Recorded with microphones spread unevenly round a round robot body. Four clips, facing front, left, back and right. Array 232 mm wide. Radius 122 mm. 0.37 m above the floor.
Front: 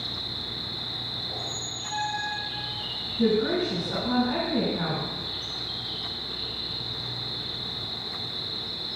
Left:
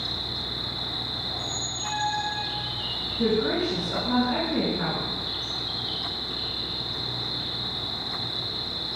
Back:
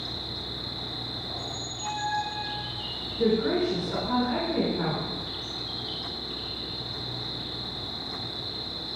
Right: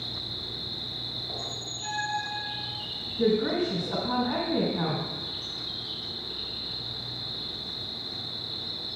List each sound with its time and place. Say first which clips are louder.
0.0 s an insect: left 5 dB, back 1 dB; 90° right, 3 m
1.3 s a squeak: left 4 dB, even; 80° right, 3 m
3.2 s a woman speaking: even, even; 80° right, 2.5 m